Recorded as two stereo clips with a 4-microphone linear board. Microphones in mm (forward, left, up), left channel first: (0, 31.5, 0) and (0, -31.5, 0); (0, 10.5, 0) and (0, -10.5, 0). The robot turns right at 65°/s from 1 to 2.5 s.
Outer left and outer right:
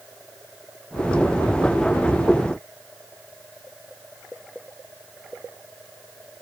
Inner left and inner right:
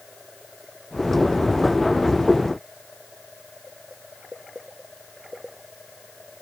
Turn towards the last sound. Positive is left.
No sound to turn to.